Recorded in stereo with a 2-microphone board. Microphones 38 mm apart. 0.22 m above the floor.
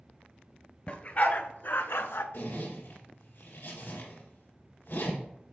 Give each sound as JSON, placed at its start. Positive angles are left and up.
{"t": 0.9, "sound": "a dog barking", "side_deg": 30, "distance_m": 0.9}
{"t": 2.3, "sound": "a zipper", "side_deg": 70, "distance_m": 2.0}